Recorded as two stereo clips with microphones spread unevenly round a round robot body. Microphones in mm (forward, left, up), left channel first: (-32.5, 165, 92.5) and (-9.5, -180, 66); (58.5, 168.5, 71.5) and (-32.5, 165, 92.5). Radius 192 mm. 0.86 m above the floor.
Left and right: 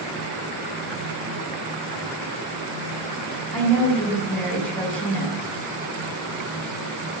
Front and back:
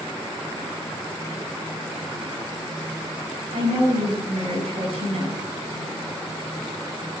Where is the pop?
No pop in this recording.